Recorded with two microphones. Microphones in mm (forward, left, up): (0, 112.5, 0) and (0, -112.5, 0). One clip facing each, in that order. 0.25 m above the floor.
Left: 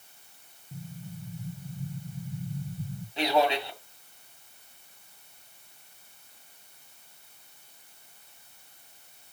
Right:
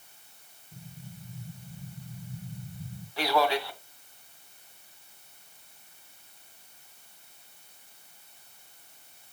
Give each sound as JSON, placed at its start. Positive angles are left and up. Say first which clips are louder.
{"t": 0.7, "sound": "an explosion", "louder": "left 5 dB", "side_deg": 80, "distance_m": 6.0}
{"t": 3.2, "sound": "a man speaking", "louder": "left 1 dB", "side_deg": 20, "distance_m": 2.0}